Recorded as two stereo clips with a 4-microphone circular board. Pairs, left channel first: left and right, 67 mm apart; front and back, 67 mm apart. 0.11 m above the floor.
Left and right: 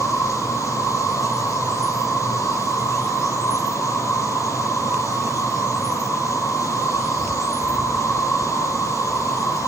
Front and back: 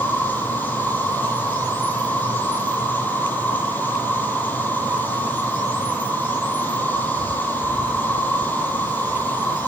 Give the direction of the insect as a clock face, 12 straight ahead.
10 o'clock.